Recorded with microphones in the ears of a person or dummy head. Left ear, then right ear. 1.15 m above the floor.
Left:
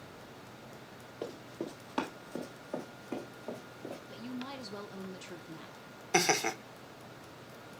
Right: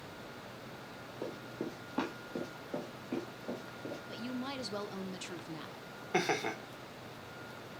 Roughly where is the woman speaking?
Centre.